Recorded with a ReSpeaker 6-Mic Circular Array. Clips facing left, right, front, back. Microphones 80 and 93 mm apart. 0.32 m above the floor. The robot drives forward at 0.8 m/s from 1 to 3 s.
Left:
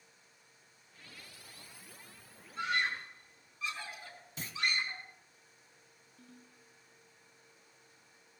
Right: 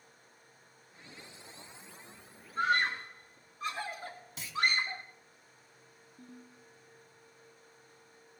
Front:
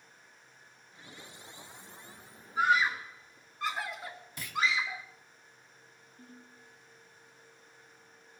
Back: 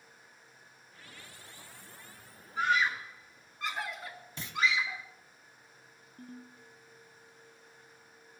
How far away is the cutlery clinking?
I don't hear cutlery clinking.